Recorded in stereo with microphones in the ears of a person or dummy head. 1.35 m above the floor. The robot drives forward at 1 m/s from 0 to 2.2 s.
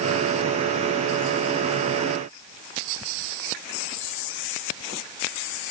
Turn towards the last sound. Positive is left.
No sound to turn to.